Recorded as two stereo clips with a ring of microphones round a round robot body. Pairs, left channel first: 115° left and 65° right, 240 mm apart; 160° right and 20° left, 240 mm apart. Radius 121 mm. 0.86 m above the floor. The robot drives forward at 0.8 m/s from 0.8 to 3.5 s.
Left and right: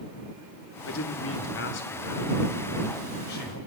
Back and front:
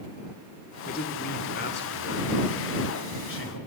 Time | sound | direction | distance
0.9 | a man speaking | 145° left | 2.0 m